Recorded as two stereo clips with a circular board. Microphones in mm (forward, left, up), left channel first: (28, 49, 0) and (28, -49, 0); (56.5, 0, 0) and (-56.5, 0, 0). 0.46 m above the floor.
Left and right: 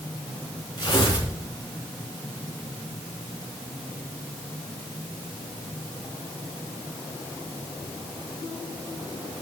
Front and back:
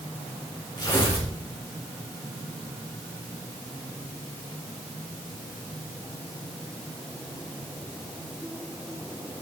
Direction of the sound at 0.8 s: 50° left.